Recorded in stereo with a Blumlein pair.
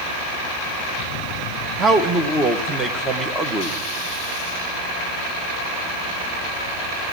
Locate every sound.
1.8 s a man speaking: 15° right, 1.0 m